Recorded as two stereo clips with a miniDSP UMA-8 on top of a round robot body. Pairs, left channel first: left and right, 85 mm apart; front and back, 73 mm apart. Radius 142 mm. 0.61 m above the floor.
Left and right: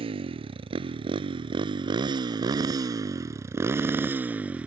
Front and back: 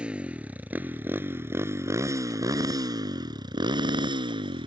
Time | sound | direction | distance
0.0 | a motorcycle | 105° right | ?